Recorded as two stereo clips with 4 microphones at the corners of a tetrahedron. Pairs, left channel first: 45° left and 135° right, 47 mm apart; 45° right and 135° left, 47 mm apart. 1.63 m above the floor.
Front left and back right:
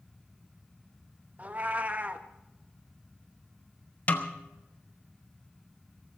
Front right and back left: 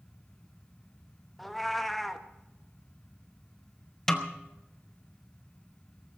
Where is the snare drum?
25° left, 1.2 m.